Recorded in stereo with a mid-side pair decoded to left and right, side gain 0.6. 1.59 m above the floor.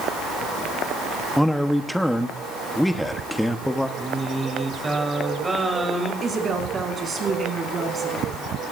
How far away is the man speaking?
About 1.0 m.